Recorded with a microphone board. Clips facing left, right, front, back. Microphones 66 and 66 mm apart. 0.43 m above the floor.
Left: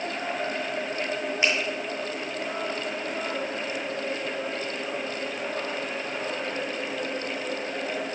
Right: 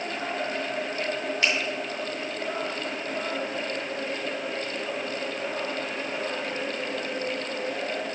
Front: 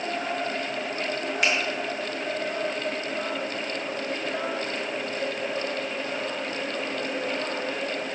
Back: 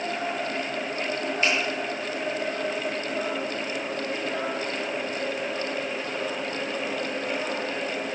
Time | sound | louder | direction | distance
1.4 | a finger snap | left 1 dB, even | 20° left | 5.5 m